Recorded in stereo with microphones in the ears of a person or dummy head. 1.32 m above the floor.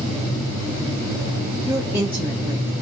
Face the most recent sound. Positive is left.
turn(degrees=-10)  # may be behind; listen again after turning